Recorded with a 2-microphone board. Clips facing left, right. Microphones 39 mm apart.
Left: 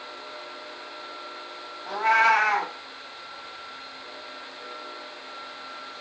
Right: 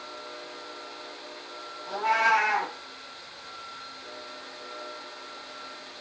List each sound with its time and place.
1.9 s a cat meowing: 60° left (ahead or behind), 1.3 m